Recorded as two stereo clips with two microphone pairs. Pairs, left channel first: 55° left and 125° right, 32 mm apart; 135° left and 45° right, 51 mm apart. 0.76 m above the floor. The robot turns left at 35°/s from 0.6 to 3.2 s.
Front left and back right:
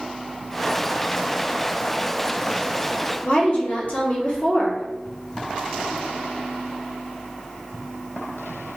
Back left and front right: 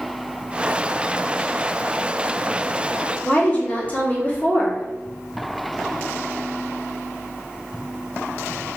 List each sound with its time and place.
3.2 s a woman speaking: 80° left, 1.3 m